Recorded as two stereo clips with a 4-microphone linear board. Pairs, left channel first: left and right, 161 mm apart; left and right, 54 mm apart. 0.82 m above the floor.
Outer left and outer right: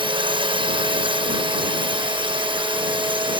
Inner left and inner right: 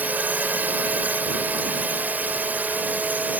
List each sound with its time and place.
0.0 s a drone: 30° right (ahead or behind)